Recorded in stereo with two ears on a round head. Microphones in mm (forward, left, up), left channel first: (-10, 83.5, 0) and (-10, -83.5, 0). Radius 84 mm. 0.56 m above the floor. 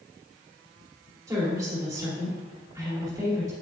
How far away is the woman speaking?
About 1.9 m.